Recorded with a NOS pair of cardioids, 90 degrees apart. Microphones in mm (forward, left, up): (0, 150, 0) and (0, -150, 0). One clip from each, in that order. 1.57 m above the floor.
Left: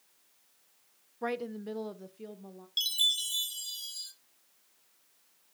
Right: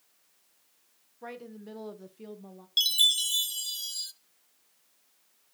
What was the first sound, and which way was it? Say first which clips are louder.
A woman speaking: left 8 dB; 50° left.